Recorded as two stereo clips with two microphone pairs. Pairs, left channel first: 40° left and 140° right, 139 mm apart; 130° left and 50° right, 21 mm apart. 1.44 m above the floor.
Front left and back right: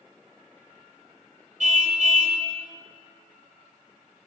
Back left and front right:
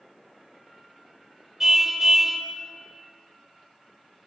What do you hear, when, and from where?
1.6 s a car horn: 115° right, 3.5 m